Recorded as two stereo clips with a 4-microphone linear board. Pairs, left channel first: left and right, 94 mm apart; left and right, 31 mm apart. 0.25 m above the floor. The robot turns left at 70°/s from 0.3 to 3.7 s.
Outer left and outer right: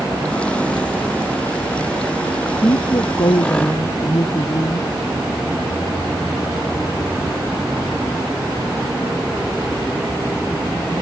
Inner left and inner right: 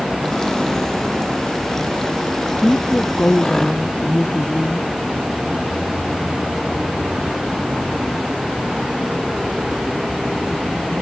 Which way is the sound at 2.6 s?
135° left.